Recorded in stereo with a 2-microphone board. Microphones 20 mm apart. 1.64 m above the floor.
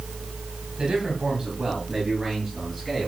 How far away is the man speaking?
About 2.5 m.